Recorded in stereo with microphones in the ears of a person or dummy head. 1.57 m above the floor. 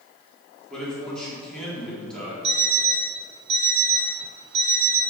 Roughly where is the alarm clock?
Right.